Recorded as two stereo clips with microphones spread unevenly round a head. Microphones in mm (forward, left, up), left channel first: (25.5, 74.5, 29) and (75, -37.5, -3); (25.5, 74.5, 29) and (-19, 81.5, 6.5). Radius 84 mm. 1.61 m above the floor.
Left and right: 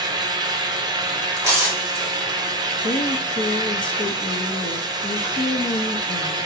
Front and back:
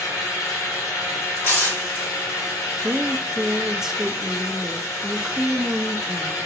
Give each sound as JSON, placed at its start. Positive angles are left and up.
{"t": 0.0, "sound": "a fan", "azimuth_deg": -25, "distance_m": 0.8}
{"t": 1.4, "sound": "tearing paper", "azimuth_deg": 5, "distance_m": 3.0}
{"t": 2.8, "sound": "a woman speaking", "azimuth_deg": 80, "distance_m": 0.6}